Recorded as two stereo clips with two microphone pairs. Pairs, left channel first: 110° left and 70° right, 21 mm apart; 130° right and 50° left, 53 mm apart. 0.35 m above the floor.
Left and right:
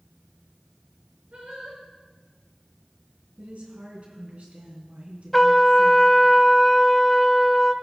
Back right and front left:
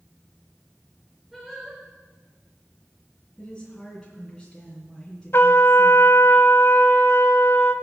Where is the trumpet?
165° right, 0.7 m.